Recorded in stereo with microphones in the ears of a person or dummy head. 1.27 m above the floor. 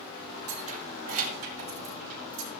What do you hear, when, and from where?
0.5 s keys jangling: 40° right (ahead or behind), 1.2 m; by 2.5 s 45° right (ahead or behind), 4 m